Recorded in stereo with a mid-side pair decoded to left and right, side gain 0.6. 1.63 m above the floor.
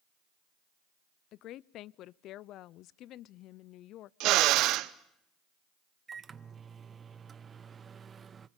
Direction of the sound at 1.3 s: 60° left.